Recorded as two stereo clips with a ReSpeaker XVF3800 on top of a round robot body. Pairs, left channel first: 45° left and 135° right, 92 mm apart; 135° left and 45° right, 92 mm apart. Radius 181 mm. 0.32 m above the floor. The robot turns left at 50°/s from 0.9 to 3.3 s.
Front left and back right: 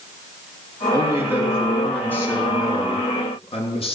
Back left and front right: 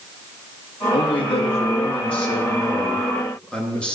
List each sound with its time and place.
0.9 s a man speaking: 175° left, 7.5 m; by 4.0 s 55° left, 7.5 m